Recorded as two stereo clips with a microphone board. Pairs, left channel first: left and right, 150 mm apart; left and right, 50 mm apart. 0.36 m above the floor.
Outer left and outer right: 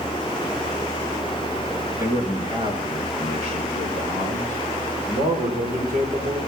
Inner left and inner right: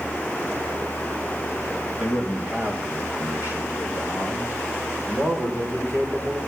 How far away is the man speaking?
About 3.5 m.